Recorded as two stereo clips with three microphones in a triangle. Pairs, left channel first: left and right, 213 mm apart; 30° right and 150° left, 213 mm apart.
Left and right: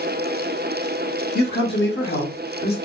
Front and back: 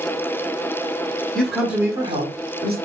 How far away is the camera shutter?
No camera shutter in this recording.